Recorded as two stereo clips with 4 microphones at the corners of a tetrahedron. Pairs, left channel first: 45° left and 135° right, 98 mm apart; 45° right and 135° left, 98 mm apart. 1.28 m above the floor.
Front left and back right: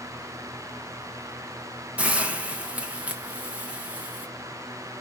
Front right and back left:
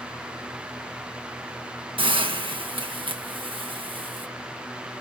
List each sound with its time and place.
2.0 s a hiss: 150° left, 1.0 m